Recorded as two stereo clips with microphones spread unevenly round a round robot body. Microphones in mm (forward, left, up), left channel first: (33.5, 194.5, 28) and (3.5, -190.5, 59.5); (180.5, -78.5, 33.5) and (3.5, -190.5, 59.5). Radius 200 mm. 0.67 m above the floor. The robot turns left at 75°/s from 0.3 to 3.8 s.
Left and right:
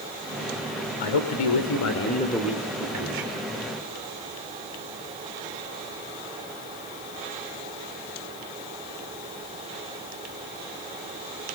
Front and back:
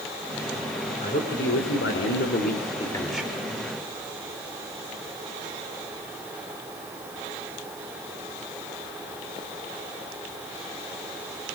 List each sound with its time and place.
1.0 s a man speaking: 105° left, 2.5 m; by 3.3 s 70° right, 2.5 m